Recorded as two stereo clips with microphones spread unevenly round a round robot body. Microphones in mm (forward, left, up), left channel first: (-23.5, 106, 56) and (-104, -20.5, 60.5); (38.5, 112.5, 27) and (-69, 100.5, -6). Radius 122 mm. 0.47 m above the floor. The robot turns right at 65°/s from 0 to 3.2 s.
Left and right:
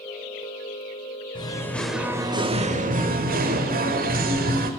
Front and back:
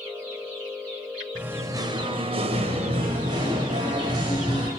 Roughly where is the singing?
Behind left.